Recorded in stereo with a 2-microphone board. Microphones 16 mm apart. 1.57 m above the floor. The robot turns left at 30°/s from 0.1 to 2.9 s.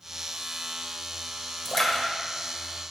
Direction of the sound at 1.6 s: 20° left (ahead or behind).